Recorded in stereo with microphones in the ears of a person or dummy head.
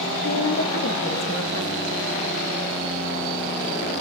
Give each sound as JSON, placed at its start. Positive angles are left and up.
{"t": 0.2, "sound": "a woman speaking", "side_deg": 75, "distance_m": 2.5}